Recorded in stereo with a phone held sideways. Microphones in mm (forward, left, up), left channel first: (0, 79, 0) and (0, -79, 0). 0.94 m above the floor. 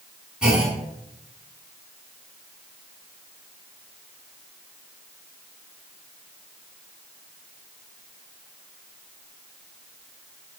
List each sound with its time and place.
0.4 s a clunk: 5° right (ahead or behind), 6.5 m